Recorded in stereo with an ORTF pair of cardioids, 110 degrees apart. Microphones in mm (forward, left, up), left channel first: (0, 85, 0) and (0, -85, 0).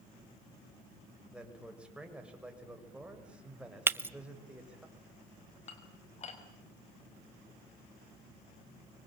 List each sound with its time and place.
1.3 s a man speaking: 5° right, 6 m
3.9 s breaking glass: 15° right, 0.8 m
5.7 s dishes clattering: 40° left, 5 m